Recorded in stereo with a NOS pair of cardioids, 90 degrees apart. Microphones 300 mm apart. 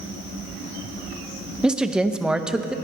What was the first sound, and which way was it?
A woman speaking, 5° right.